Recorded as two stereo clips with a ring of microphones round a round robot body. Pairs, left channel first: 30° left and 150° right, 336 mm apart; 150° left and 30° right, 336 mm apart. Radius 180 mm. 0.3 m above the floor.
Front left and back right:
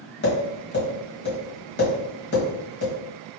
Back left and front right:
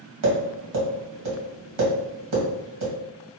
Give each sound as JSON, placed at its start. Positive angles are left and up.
{"t": 0.2, "sound": "tapping", "azimuth_deg": -25, "distance_m": 2.5}